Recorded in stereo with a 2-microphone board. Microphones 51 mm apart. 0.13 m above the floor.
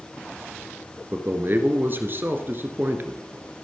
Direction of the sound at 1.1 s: 45° right (ahead or behind).